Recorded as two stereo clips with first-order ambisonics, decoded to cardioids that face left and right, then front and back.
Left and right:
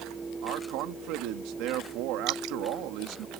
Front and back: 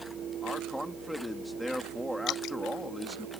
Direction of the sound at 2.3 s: 55° right.